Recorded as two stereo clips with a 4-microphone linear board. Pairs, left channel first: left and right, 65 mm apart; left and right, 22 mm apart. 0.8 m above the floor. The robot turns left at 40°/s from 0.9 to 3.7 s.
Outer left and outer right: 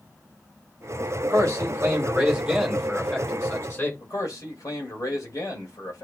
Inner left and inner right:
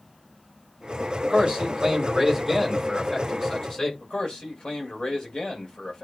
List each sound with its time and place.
1.2 s a man speaking: 120° right, 6.5 m; by 3.9 s 140° left, 6.5 m
4.0 s a man speaking: 60° left (ahead or behind), 3.5 m